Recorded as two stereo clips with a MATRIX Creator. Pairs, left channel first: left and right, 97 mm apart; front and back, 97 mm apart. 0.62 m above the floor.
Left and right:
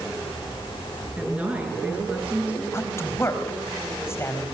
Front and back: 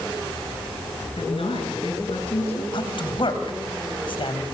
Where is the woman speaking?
15° right, 10 m.